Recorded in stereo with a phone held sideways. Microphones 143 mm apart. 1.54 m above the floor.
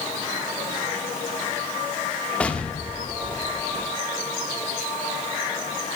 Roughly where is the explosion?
Centre.